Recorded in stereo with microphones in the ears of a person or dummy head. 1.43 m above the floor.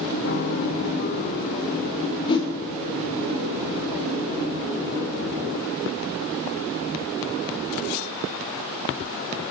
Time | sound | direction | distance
0.2 | a piano | 55° left (ahead or behind) | 0.6 m
2.3 | a whoosh | 25° left (ahead or behind) | 1.4 m